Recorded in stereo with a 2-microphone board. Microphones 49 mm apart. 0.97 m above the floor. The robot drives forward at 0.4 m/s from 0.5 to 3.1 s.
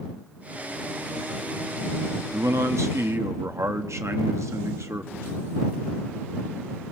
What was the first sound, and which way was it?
A man speaking, 80° right.